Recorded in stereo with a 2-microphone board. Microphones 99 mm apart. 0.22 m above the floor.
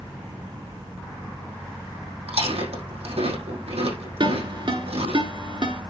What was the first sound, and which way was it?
Chewing, 85° right.